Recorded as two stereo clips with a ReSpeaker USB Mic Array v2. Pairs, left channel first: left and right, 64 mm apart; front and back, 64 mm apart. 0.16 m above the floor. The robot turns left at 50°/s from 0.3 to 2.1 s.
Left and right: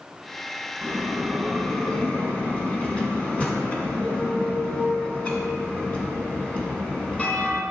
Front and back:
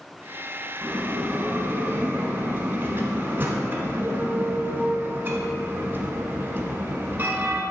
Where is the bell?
145° right, 1.3 m; by 7.6 s 150° left, 1.3 m.